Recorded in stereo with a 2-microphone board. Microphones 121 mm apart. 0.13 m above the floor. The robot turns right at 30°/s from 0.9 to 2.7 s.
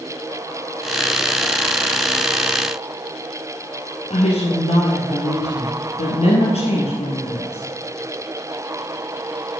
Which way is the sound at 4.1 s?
60° left (ahead or behind).